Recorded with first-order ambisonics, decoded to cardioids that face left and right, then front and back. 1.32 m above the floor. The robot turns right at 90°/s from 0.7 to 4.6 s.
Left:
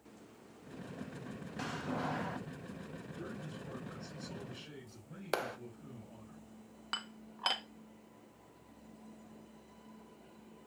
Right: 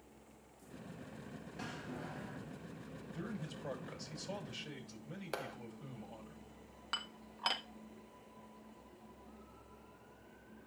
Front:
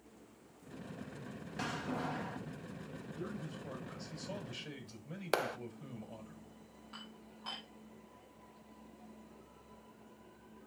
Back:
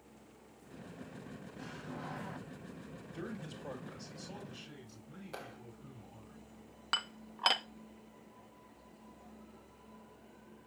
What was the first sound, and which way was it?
A door slam, 25° left.